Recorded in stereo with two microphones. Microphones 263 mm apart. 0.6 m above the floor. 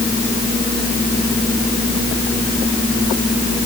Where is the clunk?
I don't hear a clunk.